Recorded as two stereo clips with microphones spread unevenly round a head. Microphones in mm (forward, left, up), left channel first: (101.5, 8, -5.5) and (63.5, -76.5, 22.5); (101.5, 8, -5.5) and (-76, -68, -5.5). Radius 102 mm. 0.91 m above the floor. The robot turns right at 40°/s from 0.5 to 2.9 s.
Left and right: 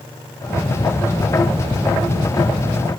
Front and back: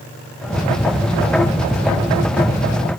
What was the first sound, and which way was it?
Only background noise.